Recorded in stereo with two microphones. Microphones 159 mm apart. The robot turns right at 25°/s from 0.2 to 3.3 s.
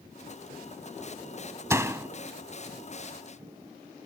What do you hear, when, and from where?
1.7 s a door slam: 15° right (ahead or behind); by 2.1 s 20° right (ahead or behind)